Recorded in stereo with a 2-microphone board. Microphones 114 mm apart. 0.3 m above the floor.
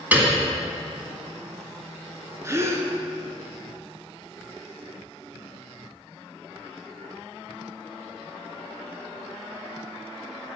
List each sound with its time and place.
0.1 s a piano: 15° right (ahead or behind), 1.7 m
2.4 s a gasp: 25° right (ahead or behind), 1.0 m